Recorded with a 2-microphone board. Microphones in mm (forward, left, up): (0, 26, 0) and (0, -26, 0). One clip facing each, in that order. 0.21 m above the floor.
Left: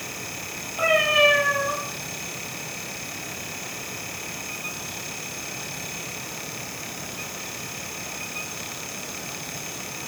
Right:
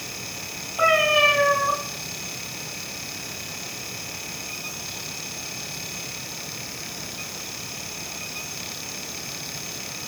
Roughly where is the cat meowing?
Centre.